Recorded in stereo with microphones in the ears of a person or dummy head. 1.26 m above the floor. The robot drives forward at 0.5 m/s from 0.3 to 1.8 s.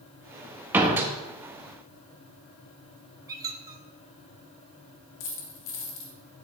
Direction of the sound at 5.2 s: 50° left (ahead or behind).